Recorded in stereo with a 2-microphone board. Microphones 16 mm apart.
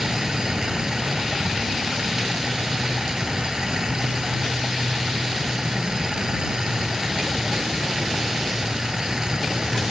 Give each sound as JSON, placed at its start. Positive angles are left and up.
{"t": 0.0, "sound": "running water", "side_deg": -40}